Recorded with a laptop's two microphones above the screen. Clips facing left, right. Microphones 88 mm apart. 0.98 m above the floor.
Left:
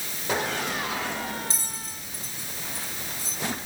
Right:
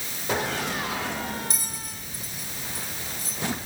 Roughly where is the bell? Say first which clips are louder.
Even; left.